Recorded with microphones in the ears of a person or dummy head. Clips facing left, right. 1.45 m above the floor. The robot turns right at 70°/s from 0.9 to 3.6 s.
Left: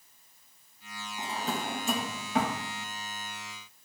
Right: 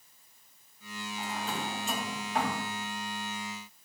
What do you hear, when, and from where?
1.2 s a drawer: 15° left (ahead or behind), 2.5 m; by 2.6 s 50° left (ahead or behind), 2.5 m